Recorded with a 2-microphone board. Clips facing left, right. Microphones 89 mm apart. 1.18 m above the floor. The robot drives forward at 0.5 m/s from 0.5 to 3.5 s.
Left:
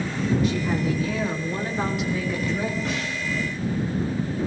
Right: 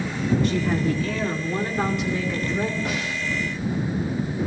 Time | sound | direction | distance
0.4 | a woman speaking | 5° left (ahead or behind) | 2 m
2.9 | a snare drum | 5° right (ahead or behind) | 1.8 m